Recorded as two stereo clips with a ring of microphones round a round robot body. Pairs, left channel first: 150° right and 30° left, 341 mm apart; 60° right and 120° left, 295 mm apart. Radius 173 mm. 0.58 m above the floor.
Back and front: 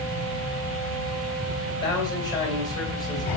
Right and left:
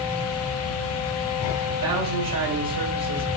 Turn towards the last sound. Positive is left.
turn(degrees=130)